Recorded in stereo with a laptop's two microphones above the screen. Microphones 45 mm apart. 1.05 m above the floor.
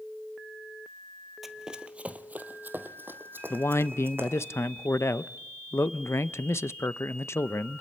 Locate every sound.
1.4 s running footsteps: 10° right (ahead or behind), 1.1 m; by 4.5 s 50° right (ahead or behind), 3 m
3.5 s a man speaking: 70° left (ahead or behind), 0.6 m